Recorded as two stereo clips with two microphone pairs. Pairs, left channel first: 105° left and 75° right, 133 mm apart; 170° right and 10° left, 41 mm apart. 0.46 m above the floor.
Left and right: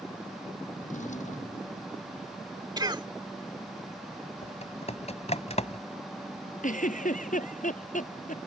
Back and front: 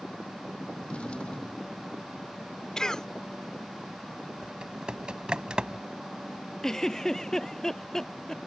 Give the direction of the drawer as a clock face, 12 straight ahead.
8 o'clock.